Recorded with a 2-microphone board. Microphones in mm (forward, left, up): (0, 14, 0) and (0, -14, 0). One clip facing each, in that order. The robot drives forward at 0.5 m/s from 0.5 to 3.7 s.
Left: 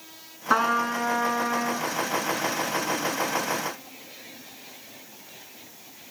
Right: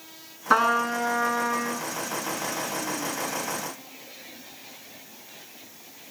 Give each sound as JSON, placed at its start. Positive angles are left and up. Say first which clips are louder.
{"t": 0.5, "sound": "a trumpet", "louder": "right 1 dB", "side_deg": -5, "distance_m": 0.9}